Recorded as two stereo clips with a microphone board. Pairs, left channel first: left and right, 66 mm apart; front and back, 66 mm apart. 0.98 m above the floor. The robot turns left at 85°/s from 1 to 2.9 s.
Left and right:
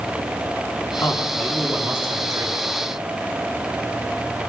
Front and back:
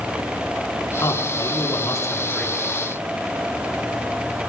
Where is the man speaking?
55° left, 8 m; by 2.6 s 80° right, 8 m.